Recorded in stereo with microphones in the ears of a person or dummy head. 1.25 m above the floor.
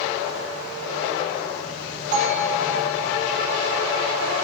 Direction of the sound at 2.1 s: 40° right (ahead or behind).